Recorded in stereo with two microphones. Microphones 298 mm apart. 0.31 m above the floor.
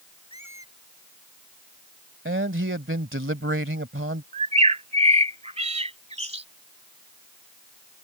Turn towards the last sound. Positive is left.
turn(degrees=-20)  # may be behind; listen again after turning